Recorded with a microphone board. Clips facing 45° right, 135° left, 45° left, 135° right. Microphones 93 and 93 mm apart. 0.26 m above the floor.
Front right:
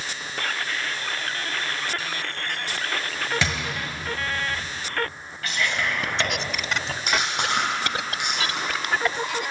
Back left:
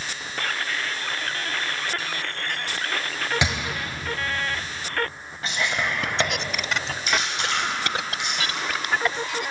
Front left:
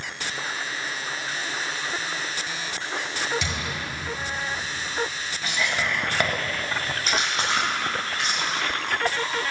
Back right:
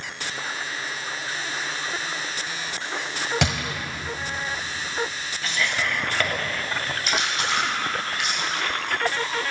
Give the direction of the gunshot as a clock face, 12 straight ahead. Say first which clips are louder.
Back left 1 dB, back right 5 dB; 5 o'clock.